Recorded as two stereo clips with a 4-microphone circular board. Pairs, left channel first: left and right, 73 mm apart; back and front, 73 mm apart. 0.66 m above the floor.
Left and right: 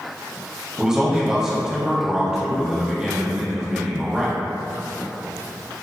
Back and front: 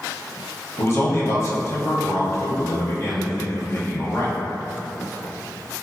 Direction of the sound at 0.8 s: 165° right.